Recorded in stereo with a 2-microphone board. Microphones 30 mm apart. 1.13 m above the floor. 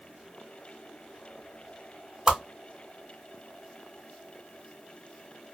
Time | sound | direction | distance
2.3 | a whoosh | 20° right (ahead or behind) | 1.3 m